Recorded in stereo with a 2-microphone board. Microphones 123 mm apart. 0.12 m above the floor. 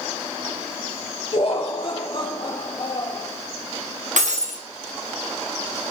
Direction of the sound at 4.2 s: 85° right.